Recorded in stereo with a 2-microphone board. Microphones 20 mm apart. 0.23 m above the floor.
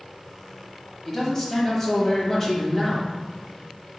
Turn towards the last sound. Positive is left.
turn(degrees=25)  # may be behind; listen again after turning